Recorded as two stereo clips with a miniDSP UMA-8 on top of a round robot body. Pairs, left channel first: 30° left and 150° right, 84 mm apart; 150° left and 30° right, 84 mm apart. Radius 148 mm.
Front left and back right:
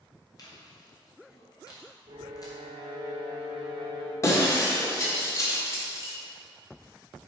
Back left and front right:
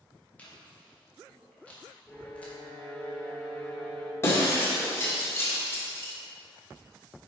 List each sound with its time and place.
0.4 s chewing: 75° left, 2 m
2.1 s a violin: 130° right, 0.7 m
4.2 s breaking glass: 90° left, 1.7 m